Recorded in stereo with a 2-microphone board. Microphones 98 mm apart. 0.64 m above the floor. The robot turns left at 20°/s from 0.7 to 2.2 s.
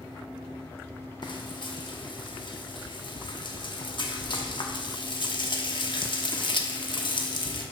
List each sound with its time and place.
1.2 s frying: 50° left (ahead or behind), 0.9 m; by 7.6 s 55° left (ahead or behind), 0.9 m